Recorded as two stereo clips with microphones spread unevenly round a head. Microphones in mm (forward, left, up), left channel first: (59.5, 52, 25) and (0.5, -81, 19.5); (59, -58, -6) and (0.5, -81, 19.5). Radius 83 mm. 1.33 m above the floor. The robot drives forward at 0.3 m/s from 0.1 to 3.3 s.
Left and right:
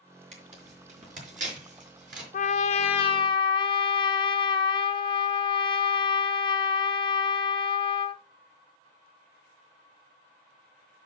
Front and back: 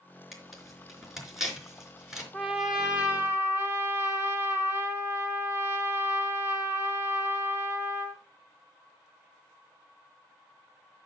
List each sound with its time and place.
0.3 s tearing paper: 75° right, 4 m; by 2.2 s 85° right, 4 m
2.3 s a trumpet: 90° left, 0.6 m; by 8.2 s 120° left, 0.6 m